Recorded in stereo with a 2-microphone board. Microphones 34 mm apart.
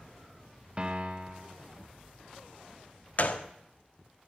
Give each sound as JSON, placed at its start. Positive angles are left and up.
{"t": 0.8, "sound": "a piano", "side_deg": -30, "distance_m": 0.9}
{"t": 3.2, "sound": "a gunshot", "side_deg": 50, "distance_m": 1.1}